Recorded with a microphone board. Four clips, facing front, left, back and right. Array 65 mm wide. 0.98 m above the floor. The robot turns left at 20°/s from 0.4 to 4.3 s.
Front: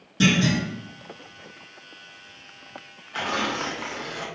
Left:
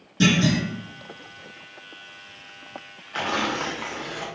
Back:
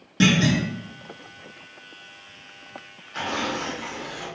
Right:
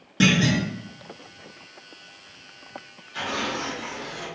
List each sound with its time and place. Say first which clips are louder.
0.2 s a clunk: even, back 1 dB; 130° right, 1.1 m; by 0.7 s 135° right, 1.1 m
3.1 s tearing paper: left 3 dB, front 1 dB; 65° left, 0.6 m; by 4.3 s 45° left, 0.6 m